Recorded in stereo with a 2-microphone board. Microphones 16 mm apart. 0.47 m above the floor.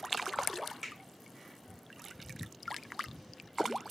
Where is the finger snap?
35° right (ahead or behind), 2 m.